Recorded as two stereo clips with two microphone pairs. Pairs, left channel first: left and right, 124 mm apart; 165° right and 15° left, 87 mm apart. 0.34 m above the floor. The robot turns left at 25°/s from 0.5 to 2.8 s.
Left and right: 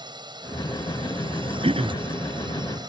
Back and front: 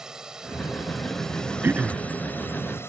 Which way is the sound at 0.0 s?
65° right.